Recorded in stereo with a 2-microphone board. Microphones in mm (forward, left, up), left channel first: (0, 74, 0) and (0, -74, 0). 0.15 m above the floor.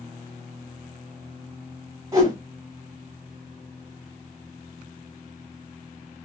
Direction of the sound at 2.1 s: 20° right (ahead or behind).